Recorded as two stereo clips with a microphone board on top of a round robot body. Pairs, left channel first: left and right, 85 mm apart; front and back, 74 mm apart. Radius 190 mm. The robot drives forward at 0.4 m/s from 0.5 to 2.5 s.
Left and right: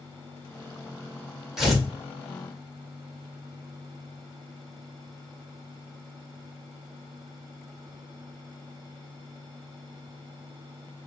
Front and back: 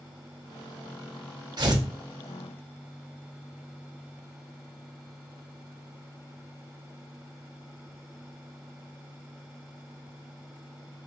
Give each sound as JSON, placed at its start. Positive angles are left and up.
{"t": 1.6, "sound": "tearing paper", "azimuth_deg": -175, "distance_m": 1.8}